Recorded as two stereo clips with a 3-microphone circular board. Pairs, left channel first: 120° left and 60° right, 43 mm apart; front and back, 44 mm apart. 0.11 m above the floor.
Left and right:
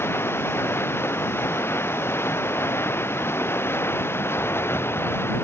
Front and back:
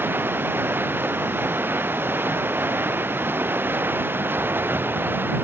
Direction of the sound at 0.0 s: 145° left.